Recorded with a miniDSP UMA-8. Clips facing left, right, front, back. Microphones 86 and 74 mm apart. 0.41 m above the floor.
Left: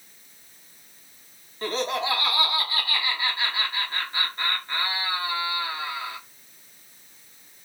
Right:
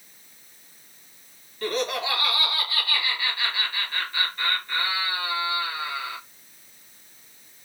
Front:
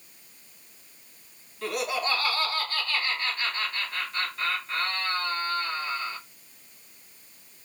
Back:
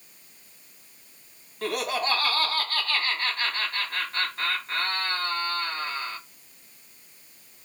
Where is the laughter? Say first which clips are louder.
Even, back 1 dB; 145° left, 3 m.